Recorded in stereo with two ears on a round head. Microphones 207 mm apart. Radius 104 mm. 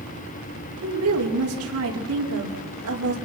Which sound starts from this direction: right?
A woman speaking, at 0.8 s.